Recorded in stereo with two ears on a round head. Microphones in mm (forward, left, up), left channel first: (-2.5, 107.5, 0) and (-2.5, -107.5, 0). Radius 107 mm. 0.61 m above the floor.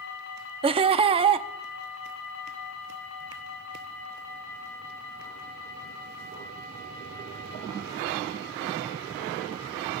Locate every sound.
0.6 s laughter: 25° right (ahead or behind), 0.6 m